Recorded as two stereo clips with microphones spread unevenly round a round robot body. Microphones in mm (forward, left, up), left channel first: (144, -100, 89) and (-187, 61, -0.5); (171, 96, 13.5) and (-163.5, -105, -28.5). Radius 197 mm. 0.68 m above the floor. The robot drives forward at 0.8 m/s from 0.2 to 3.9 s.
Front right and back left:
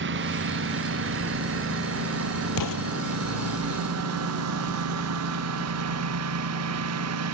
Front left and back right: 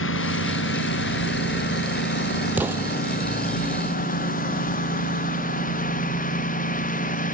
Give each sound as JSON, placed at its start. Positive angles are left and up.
{"t": 0.0, "sound": "a lawn mower", "azimuth_deg": 90}
{"t": 2.6, "sound": "an explosion", "azimuth_deg": -65}